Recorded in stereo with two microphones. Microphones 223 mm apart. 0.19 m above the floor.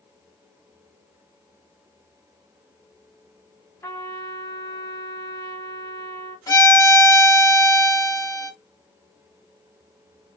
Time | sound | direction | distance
3.8 | a trumpet | 10° left (ahead or behind) | 1.3 m
6.5 | a violin | 15° left (ahead or behind) | 1.1 m